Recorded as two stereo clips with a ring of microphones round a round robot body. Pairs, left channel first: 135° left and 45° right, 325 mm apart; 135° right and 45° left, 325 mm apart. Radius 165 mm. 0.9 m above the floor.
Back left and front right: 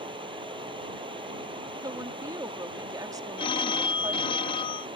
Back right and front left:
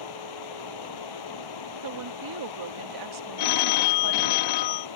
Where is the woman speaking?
35° left.